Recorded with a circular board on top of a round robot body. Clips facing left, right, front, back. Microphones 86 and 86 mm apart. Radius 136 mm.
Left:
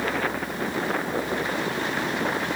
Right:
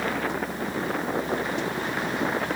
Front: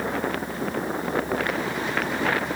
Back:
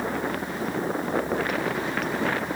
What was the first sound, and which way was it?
Only background noise.